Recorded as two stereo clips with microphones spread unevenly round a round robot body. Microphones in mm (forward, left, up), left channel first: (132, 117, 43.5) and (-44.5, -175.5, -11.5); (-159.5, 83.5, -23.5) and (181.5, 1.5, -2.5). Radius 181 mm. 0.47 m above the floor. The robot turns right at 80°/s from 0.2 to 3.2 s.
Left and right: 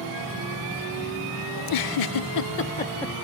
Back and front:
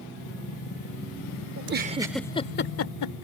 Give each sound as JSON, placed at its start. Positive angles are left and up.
{"t": 1.6, "sound": "a giggle", "azimuth_deg": 30}